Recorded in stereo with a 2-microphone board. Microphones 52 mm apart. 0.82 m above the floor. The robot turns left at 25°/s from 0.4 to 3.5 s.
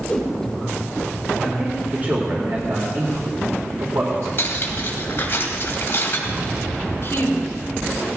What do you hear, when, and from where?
0.1 s a whoosh: 5° left (ahead or behind), 6 m
1.4 s a man speaking: 25° right, 2.5 m; by 4.3 s 75° right, 2.5 m
4.4 s cutlery clinking: 45° left (ahead or behind), 3 m
7.0 s a woman speaking: 55° left (ahead or behind), 3.5 m